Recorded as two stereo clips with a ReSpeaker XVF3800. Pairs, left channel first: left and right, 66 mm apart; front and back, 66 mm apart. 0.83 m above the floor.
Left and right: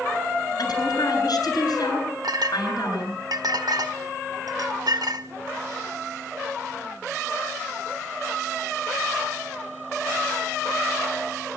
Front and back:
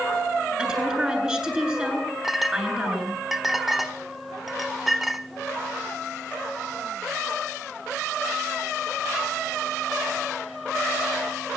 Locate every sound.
0.6 s a woman speaking: 105° left, 9 m
2.2 s a clink: 95° right, 1.5 m